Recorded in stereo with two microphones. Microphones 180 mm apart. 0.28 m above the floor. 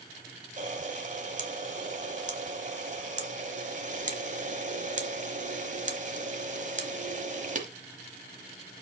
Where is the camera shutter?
45° right (ahead or behind), 1.2 m.